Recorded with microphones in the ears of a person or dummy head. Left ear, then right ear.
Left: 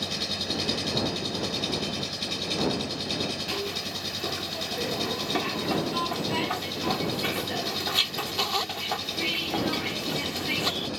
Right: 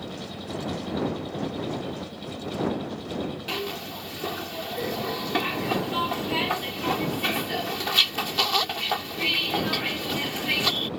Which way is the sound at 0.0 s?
60° left (ahead or behind).